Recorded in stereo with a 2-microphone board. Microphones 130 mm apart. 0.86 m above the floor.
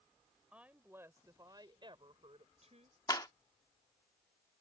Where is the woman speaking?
10° right (ahead or behind); by 3.0 s 65° right (ahead or behind).